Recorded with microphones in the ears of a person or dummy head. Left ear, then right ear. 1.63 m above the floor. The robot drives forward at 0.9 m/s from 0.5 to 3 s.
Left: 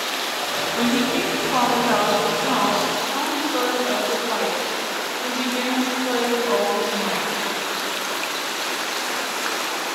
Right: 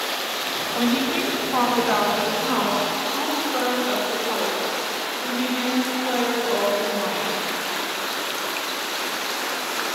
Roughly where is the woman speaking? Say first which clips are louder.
Left 1 dB; centre.